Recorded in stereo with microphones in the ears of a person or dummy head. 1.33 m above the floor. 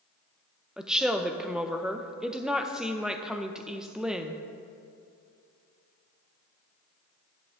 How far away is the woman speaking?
About 0.6 m.